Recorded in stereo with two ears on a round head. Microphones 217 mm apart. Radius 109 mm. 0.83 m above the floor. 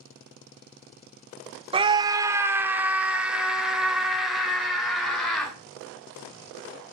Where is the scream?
20° right (ahead or behind), 0.6 m; by 5.5 s centre (ahead or behind), 3 m.